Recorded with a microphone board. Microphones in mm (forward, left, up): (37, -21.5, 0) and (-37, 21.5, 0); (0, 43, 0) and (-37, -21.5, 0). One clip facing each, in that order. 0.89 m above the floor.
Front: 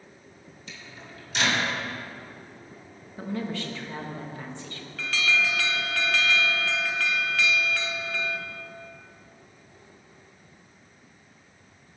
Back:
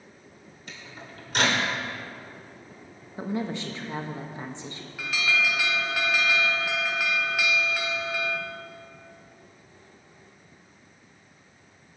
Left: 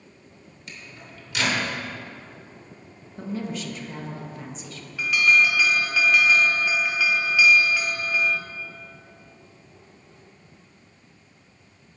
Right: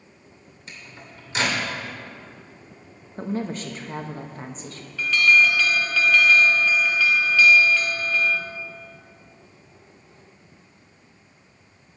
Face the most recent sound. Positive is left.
turn(degrees=110)